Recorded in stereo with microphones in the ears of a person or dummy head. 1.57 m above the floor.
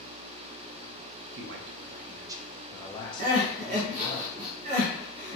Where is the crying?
35° right (ahead or behind), 0.7 m.